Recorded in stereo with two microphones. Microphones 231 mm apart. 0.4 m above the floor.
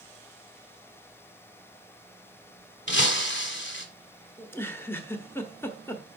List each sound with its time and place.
2.9 s breaking glass: 50° left (ahead or behind), 1.4 m
4.4 s a giggle: 10° left (ahead or behind), 1.1 m